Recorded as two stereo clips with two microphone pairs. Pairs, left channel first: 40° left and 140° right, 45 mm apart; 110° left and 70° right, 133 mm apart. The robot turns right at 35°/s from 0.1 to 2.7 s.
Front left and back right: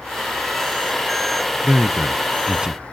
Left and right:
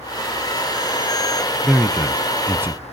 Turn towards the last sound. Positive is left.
turn(degrees=-115)